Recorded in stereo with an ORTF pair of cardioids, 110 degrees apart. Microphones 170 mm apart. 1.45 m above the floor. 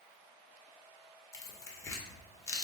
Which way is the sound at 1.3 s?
20° left.